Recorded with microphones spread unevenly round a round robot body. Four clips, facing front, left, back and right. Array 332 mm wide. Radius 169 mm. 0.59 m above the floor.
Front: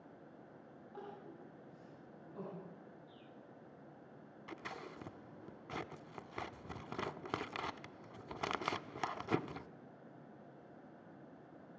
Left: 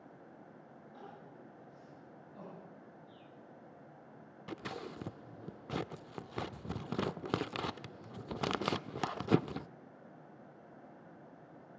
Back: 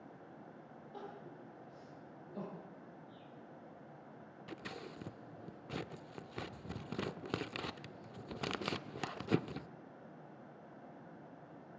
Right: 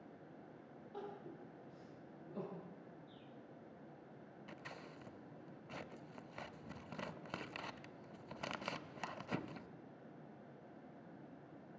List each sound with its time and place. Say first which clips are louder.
0.9 s crying: right 3 dB, back 1 dB; 120° right, 9.5 m
3.1 s a bird: left 2 dB, back 3 dB; 40° left, 3 m
4.5 s scissors: left 12 dB, even; 105° left, 0.5 m